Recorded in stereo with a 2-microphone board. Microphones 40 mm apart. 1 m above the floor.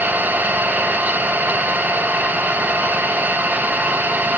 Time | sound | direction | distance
0.0 | an engine running | 45° right (ahead or behind) | 4.5 m